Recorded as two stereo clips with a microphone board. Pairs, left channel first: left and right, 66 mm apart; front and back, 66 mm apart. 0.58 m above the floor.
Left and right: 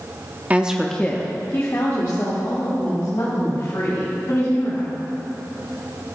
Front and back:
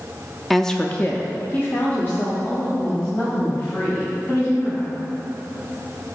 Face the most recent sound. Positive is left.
turn(degrees=60)